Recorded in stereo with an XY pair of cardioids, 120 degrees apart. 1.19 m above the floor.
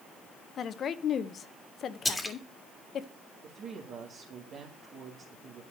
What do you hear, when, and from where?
0.6 s a woman speaking: 45° left, 0.8 m
2.0 s a splash: 10° left, 1.9 m
3.4 s a woman speaking: 60° right, 1.8 m